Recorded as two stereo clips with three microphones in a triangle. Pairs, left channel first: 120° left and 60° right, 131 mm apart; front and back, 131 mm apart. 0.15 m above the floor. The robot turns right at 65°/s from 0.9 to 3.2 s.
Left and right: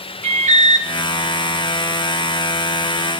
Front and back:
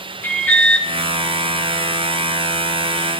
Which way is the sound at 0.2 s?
70° right.